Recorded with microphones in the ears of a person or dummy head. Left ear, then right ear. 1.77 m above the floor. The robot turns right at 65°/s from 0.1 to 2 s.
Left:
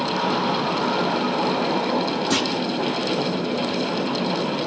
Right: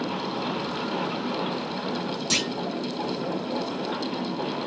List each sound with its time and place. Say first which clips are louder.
2.3 s a clunk: even; 75° right (ahead or behind), 1.6 m